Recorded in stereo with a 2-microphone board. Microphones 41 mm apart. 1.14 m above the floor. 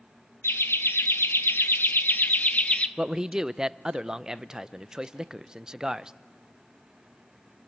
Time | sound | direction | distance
0.4 | laughter | 85° left | 1.5 m
3.0 | a man speaking | 20° right (ahead or behind) | 0.5 m